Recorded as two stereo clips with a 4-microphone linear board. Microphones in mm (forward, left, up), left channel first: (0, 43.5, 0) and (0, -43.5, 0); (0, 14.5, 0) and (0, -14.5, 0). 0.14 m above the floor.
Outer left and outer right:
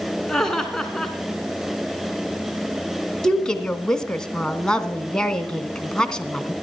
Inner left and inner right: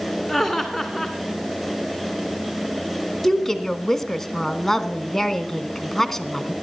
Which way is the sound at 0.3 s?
10° left (ahead or behind).